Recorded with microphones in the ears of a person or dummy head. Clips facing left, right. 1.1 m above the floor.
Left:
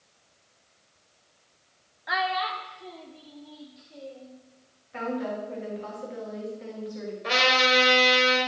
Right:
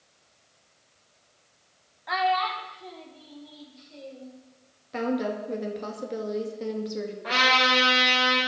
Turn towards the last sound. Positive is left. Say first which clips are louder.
# left 3 dB
turn(degrees=35)  # may be behind; listen again after turning